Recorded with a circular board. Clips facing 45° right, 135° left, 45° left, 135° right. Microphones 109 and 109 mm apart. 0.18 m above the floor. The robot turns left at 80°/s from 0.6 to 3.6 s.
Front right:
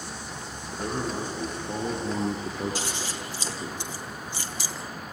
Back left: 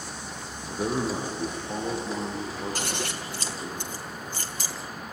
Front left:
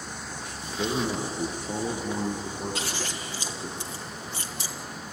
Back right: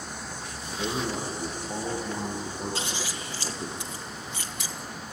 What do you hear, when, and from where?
0.7 s a man speaking: 105° left, 8 m; by 3.8 s 130° right, 8 m
2.8 s scissors: 170° left, 2.5 m; by 4.8 s 100° left, 2.5 m